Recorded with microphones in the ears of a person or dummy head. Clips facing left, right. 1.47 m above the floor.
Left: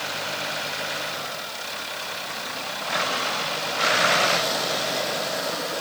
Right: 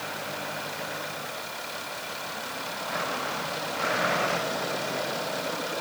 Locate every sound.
Only background noise.